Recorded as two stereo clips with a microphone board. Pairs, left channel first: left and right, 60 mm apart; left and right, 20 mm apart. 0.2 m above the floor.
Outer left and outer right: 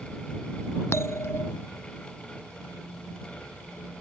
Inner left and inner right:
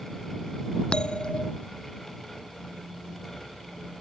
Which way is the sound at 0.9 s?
50° left (ahead or behind).